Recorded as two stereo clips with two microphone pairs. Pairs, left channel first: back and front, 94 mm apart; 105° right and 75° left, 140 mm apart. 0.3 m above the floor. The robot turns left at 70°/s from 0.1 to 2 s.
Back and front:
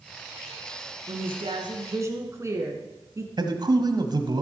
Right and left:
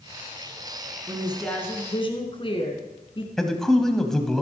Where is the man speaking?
20° right, 1.4 m.